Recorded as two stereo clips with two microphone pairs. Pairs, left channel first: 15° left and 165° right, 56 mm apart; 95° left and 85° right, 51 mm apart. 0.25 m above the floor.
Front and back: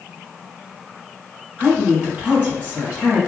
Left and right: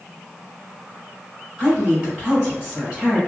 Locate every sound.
1.6 s a woman speaking: 135° right, 1.7 m